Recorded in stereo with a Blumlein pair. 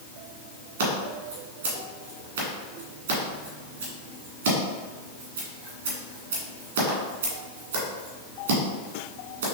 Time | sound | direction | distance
0.8 | scissors | 65° right | 1.6 m